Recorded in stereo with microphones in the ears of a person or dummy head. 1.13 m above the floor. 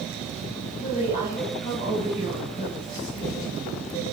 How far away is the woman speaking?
About 5.5 m.